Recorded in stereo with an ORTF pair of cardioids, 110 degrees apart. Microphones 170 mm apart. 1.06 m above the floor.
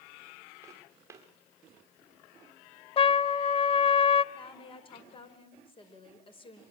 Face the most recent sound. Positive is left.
turn(degrees=30)